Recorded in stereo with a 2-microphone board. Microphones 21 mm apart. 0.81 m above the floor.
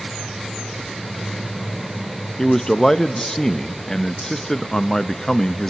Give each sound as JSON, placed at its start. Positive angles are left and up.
{"t": 2.4, "sound": "a man speaking", "side_deg": 25, "distance_m": 0.5}